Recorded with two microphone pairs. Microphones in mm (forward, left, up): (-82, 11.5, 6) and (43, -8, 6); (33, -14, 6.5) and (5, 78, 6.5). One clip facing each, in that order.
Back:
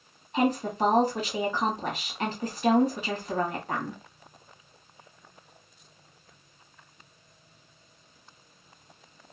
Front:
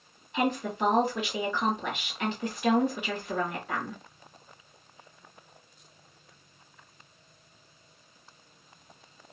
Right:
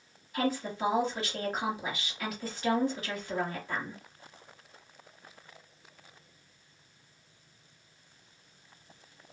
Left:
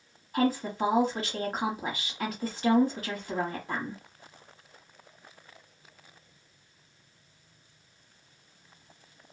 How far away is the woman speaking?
About 1.3 m.